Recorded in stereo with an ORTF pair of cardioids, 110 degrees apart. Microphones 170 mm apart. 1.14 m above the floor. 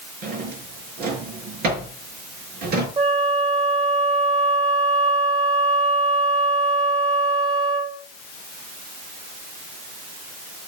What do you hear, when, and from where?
0.2 s a drawer: 65° right, 6 m
3.0 s a flute: 40° right, 2 m